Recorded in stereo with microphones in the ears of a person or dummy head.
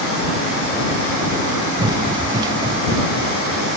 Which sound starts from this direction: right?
Running footsteps, at 1.8 s.